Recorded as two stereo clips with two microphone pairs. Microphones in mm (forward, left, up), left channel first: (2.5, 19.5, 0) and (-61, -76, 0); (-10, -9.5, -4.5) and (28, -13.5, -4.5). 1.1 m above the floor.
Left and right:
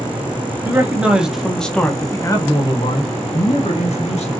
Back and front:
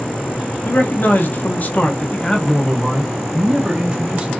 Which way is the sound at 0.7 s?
170° left.